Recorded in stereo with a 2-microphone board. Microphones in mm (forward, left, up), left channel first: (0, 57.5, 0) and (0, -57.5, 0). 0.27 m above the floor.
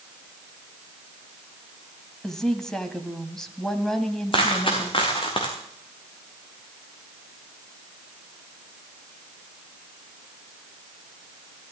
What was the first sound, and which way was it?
A woman speaking, 5° left (ahead or behind).